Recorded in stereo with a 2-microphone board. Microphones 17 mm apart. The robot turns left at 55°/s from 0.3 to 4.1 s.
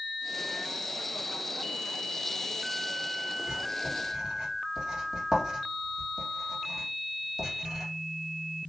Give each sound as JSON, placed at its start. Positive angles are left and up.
{"t": 3.5, "sound": "writing", "side_deg": -55, "distance_m": 2.0}